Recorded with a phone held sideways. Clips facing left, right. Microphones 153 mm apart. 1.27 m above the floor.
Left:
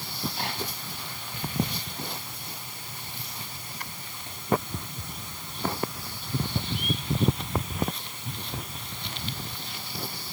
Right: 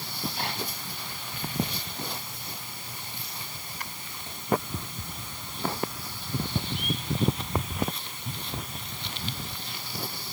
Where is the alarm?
No alarm in this recording.